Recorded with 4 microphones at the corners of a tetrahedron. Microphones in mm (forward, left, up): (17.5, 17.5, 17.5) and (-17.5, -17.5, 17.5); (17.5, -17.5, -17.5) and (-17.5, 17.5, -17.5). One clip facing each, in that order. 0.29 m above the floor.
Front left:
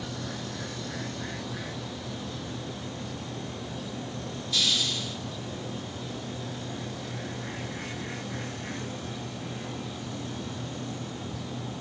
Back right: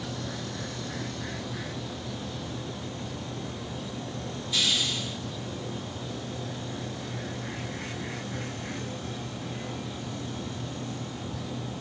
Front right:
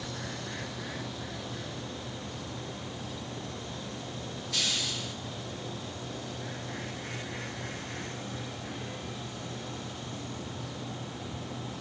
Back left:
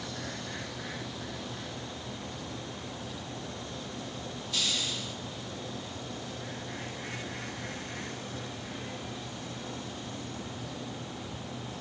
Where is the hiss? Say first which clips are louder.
Even, even; 60° right, 3 m.